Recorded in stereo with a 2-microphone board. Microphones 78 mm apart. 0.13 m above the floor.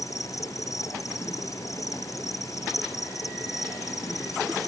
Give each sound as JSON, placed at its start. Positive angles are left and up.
{"t": 0.0, "sound": "an insect", "side_deg": 45}